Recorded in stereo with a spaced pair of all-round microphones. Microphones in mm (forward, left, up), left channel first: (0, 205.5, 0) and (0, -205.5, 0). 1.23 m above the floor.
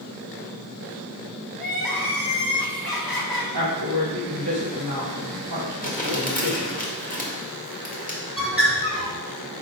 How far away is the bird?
About 1.6 m.